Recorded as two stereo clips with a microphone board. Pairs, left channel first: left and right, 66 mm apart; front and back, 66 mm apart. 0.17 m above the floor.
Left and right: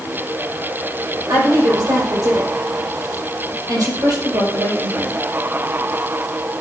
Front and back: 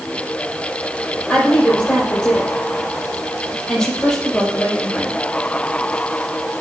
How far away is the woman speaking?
About 6 m.